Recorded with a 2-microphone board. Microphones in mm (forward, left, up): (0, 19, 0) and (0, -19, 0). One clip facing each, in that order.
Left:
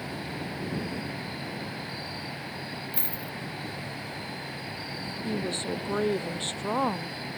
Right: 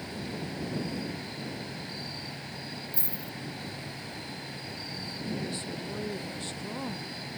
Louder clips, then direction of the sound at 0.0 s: Left 2 dB; 20° left (ahead or behind).